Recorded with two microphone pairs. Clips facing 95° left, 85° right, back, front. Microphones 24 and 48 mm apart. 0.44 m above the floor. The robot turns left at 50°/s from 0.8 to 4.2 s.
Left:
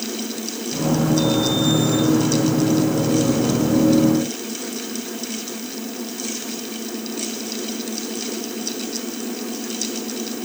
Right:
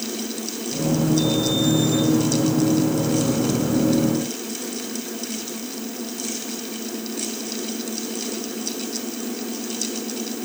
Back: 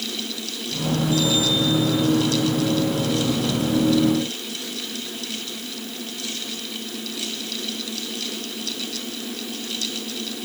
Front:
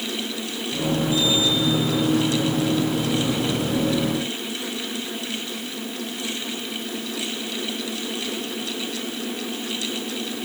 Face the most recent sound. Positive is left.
No sound to turn to.